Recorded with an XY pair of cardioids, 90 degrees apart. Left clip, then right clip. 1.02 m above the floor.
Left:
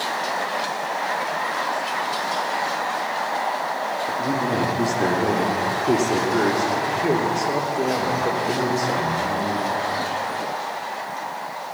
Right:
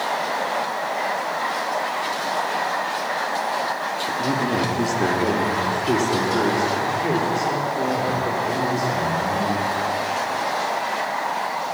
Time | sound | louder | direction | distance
4.1 | a man speaking | right 2 dB | 10° right | 2 m